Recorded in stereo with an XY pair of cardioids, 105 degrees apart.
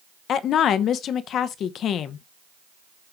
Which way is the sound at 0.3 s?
70° left.